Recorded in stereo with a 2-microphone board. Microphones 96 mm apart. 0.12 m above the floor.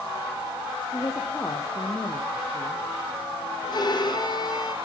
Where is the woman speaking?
30° left (ahead or behind), 3 m.